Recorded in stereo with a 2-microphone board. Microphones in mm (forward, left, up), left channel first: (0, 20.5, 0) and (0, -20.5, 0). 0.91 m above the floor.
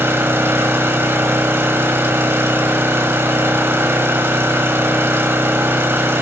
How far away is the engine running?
About 2.5 m.